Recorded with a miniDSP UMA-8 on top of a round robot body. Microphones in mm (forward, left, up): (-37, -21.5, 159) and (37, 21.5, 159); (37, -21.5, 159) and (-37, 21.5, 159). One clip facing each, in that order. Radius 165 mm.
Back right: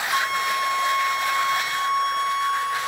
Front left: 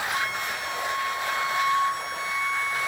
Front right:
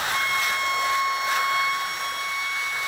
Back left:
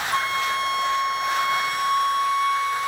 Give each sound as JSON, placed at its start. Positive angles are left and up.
{"t": 0.1, "sound": "a flute", "azimuth_deg": -160, "distance_m": 1.0}